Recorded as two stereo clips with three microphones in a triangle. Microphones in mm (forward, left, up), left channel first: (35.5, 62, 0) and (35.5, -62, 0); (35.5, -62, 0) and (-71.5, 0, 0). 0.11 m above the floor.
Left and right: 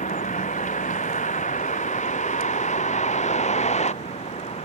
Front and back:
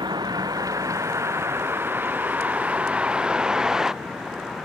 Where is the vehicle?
95° left; by 4.7 s 60° left.